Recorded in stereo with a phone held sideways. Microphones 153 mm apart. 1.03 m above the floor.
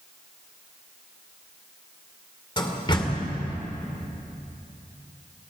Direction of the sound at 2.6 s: 30° left (ahead or behind).